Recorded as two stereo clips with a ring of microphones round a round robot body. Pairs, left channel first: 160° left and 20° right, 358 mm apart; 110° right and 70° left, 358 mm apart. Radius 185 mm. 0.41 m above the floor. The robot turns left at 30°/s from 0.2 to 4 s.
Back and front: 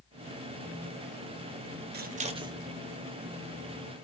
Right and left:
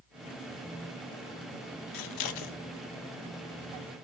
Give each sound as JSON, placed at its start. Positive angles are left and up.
{"t": 1.9, "sound": "scissors", "azimuth_deg": -85, "distance_m": 0.8}